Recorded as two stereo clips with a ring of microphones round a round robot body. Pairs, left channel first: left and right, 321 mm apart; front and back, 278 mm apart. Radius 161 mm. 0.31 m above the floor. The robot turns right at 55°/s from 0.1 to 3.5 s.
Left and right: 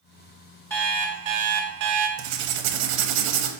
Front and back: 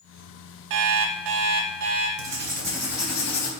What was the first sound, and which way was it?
An alarm clock, 170° left.